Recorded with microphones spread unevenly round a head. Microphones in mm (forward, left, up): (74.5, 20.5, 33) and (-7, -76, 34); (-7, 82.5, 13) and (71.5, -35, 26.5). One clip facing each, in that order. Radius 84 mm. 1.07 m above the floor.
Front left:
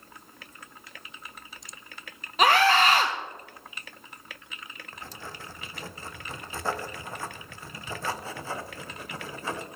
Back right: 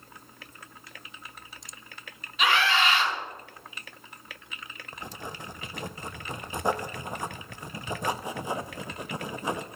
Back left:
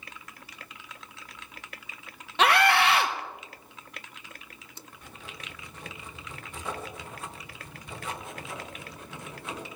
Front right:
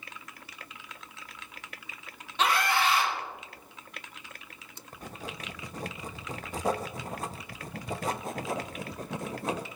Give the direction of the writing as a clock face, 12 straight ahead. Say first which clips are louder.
Back right 4 dB, front right 7 dB; 2 o'clock.